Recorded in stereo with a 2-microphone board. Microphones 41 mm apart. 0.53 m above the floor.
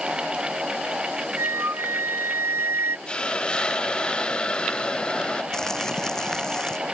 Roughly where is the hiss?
Centre.